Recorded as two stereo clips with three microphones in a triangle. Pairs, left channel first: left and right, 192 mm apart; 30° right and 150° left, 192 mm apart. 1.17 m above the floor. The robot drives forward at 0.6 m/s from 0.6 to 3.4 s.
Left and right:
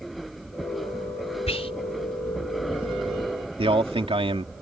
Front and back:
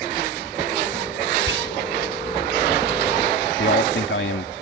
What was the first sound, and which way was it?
Whispering, 150° left.